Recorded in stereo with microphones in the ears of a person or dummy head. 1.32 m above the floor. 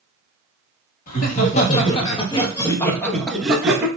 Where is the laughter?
50° left (ahead or behind), 1.7 m; by 3.9 s 10° right (ahead or behind), 1.3 m.